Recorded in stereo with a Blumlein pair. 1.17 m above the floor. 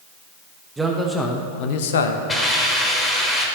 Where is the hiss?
10° left, 2 m.